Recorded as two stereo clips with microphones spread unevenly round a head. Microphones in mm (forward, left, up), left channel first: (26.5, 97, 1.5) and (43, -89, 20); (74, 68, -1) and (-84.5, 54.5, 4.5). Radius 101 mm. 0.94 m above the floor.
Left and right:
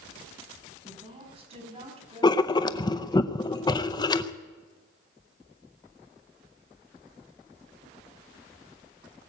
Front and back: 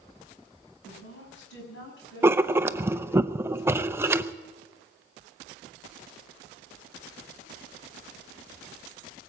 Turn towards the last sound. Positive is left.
turn(degrees=120)